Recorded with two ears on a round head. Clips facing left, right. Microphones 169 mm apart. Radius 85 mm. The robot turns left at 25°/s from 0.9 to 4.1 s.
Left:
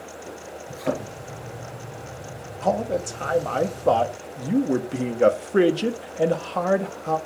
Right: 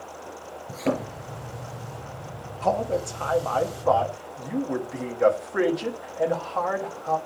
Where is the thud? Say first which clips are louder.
Right 1 dB; 50° right (ahead or behind), 5 m; by 1.1 s 45° right (ahead or behind), 5 m.